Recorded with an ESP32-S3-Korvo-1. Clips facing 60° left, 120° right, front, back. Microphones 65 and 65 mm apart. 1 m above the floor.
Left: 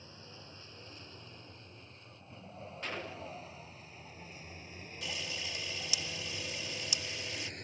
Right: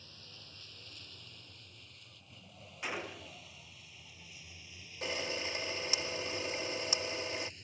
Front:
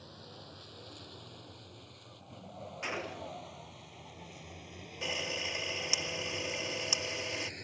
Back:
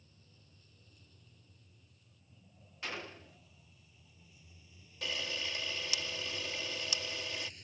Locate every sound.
0.0 s a vehicle: 5° right; by 7.6 s 30° left
2.8 s a gunshot: 50° right
5.0 s a camera shutter: 70° right